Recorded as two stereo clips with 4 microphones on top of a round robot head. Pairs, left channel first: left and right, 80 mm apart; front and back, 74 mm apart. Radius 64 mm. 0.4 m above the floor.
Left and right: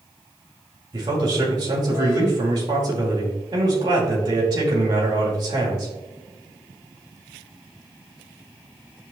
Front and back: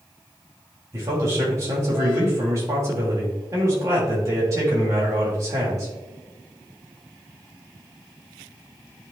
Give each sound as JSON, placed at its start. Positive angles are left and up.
{"t": 0.9, "sound": "a man speaking", "azimuth_deg": -130, "distance_m": 3.0}